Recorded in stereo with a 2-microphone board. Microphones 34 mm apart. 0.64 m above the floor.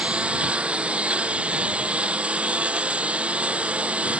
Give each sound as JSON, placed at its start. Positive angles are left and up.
{"t": 0.0, "sound": "a lawn mower", "side_deg": -35}